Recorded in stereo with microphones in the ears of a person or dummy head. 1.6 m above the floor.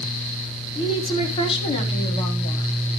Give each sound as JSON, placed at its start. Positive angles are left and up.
{"t": 0.8, "sound": "a woman speaking", "side_deg": 30, "distance_m": 4.0}